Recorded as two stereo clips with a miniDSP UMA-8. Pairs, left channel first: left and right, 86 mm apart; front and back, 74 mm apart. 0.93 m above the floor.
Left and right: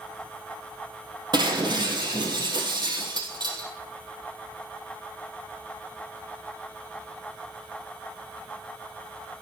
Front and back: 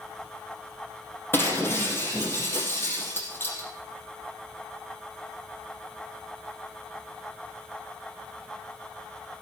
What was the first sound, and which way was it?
Breaking glass, 60° right.